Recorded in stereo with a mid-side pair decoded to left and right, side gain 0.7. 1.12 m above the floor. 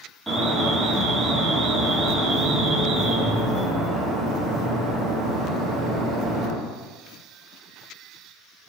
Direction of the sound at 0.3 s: 5° right.